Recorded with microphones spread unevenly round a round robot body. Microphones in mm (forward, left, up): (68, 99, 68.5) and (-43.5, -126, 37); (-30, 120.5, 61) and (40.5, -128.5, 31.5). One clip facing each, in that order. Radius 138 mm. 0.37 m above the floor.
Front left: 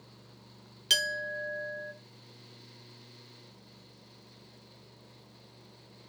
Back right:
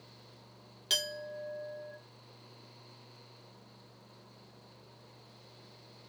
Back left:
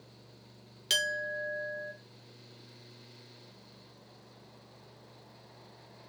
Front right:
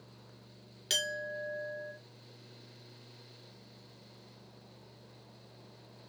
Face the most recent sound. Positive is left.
turn(degrees=25)